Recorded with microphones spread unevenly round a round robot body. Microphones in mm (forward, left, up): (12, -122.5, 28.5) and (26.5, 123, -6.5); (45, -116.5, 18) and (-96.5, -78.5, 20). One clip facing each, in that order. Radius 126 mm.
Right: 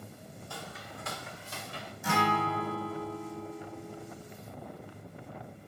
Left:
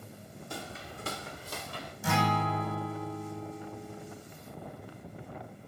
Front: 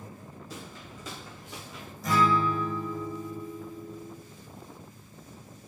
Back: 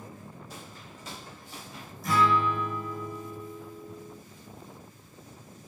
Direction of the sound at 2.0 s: 30° left.